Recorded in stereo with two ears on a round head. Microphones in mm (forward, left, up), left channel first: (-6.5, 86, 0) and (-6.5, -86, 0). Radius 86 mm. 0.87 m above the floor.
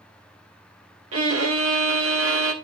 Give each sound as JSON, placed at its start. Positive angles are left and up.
{"t": 1.1, "sound": "a violin", "side_deg": -80, "distance_m": 1.4}